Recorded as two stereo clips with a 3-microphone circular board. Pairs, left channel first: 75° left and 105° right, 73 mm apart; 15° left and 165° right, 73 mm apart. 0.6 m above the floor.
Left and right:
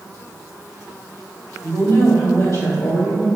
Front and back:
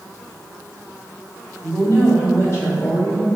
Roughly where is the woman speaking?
Ahead left.